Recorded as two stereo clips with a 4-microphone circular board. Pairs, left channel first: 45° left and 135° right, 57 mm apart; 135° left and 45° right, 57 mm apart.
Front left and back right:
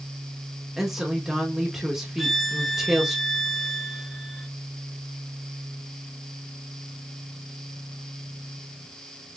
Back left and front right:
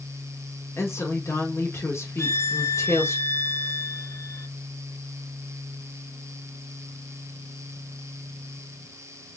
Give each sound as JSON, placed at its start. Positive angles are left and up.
{"t": 0.8, "sound": "a woman speaking", "azimuth_deg": 140, "distance_m": 1.4}
{"t": 2.2, "sound": "a violin", "azimuth_deg": 130, "distance_m": 0.5}